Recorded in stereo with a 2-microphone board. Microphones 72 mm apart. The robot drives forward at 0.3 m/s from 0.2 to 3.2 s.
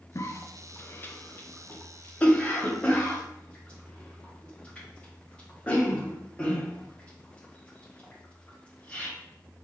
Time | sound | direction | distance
0.1 | a cough | 40° left (ahead or behind) | 0.5 m